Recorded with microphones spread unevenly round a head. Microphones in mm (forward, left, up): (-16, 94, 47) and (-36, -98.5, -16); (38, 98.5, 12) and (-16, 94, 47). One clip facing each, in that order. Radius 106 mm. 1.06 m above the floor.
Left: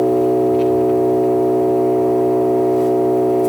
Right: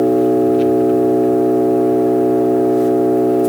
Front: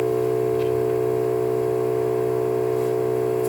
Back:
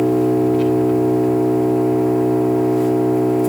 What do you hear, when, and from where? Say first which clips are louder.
0.0 s an engine running: right 2 dB, back 6 dB; 170° right, 1.7 m